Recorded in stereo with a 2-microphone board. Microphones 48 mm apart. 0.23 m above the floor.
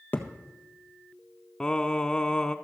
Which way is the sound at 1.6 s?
15° left (ahead or behind).